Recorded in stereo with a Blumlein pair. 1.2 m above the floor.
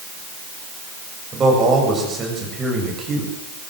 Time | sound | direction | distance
1.3 | a man speaking | 15° right | 7.5 m